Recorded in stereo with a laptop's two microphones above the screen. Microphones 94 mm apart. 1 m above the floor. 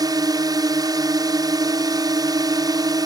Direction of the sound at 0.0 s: 45° right (ahead or behind).